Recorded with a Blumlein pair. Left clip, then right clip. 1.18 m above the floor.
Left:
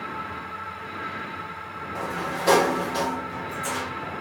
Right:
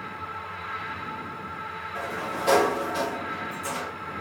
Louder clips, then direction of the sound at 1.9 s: Left 2 dB; 15° left.